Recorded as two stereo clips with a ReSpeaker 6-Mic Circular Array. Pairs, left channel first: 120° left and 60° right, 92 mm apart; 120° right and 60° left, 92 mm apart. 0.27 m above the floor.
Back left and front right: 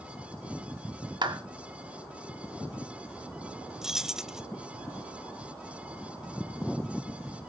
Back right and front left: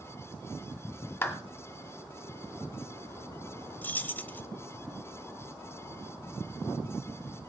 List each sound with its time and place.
1.2 s a clap: 60° right, 1.5 m
3.8 s keys jangling: 130° right, 0.7 m